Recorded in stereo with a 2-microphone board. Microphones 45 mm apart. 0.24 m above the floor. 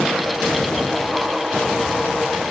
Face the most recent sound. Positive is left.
No sound to turn to.